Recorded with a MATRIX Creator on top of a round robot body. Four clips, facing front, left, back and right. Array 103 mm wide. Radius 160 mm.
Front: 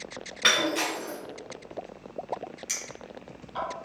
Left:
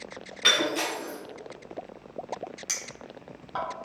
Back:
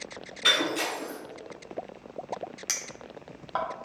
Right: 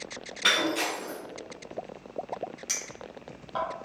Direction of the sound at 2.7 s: 175° left.